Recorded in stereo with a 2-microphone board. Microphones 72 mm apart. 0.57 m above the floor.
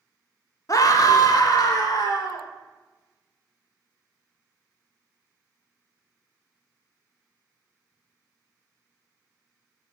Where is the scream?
50° left (ahead or behind), 0.9 m; by 2.5 s 60° left (ahead or behind), 1.9 m.